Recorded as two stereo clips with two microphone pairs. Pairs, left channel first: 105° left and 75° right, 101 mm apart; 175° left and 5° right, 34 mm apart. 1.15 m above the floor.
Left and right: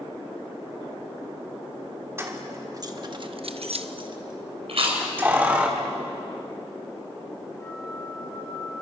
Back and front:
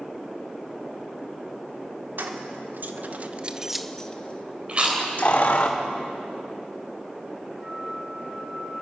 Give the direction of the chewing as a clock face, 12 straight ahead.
2 o'clock.